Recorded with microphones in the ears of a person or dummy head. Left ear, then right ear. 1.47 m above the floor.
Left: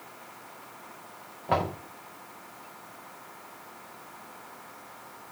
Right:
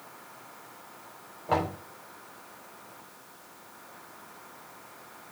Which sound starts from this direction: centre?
Knocking, at 1.5 s.